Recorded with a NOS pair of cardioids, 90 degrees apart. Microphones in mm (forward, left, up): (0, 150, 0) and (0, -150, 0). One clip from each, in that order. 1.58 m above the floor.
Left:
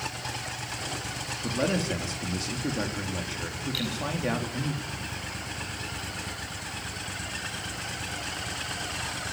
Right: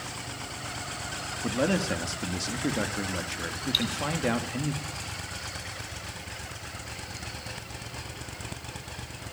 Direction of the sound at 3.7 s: 65° right.